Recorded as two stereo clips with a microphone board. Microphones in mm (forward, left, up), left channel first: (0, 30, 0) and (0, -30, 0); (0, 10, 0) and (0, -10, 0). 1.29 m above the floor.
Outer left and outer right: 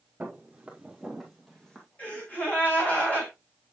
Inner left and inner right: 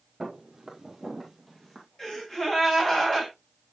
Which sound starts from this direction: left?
A gasp, at 2.0 s.